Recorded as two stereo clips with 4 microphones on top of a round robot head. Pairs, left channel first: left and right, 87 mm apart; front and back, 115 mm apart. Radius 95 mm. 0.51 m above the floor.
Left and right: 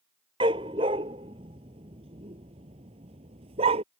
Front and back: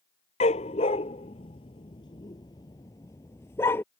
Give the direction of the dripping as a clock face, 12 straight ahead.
No dripping in this recording.